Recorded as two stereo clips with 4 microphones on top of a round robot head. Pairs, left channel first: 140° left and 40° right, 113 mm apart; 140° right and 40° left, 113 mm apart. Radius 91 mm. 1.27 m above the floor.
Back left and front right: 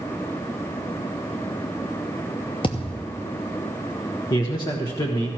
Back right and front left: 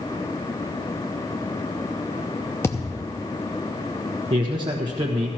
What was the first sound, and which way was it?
A thud, 165° left.